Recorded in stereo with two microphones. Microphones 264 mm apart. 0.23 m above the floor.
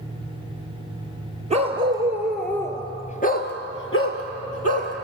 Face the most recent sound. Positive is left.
turn(degrees=70)  # may be behind; listen again after turning